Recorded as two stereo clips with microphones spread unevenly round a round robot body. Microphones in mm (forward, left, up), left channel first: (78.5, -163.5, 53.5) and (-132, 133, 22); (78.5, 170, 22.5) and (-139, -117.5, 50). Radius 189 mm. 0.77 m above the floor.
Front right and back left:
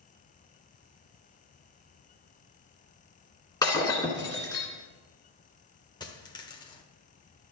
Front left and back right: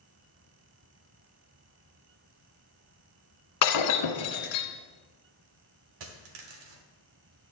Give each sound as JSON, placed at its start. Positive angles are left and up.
{"t": 3.6, "sound": "breaking glass", "azimuth_deg": 20, "distance_m": 1.5}
{"t": 6.0, "sound": "a dropped coin", "azimuth_deg": -135, "distance_m": 1.2}